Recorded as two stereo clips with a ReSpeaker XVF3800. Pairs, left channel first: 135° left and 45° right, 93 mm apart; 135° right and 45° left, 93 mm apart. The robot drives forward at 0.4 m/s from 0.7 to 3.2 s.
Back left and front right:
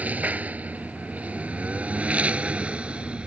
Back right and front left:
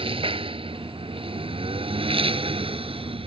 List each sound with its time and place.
0.0 s a lawn mower: 30° left; by 3.3 s 35° left